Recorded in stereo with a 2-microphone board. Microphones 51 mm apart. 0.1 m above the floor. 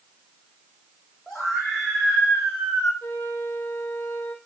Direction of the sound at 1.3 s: 5° left (ahead or behind).